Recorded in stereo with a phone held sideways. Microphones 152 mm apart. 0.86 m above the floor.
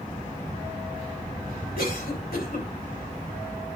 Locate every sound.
1.8 s a cough: 75° left (ahead or behind), 3 m